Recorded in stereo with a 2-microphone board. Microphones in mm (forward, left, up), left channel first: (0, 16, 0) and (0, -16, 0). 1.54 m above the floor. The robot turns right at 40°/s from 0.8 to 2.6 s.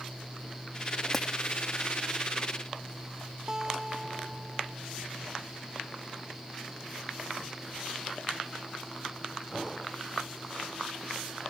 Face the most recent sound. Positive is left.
turn(degrees=-25)  # may be behind; listen again after turning